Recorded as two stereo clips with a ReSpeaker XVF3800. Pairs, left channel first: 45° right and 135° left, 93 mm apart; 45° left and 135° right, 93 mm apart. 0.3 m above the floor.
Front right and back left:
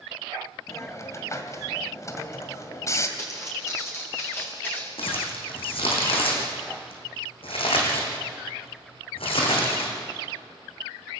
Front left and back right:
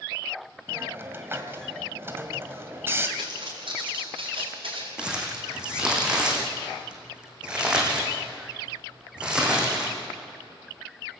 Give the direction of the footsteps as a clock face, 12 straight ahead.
3 o'clock.